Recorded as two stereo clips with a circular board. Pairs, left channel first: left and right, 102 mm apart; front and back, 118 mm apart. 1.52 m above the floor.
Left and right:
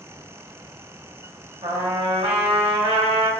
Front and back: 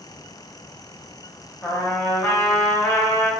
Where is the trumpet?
70° right, 0.6 m.